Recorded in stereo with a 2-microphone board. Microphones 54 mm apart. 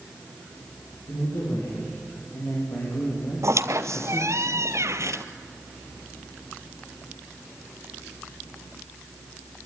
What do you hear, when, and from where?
1.1 s a man speaking: 60° left (ahead or behind), 9 m
3.4 s a squeak: 70° right (ahead or behind), 0.9 m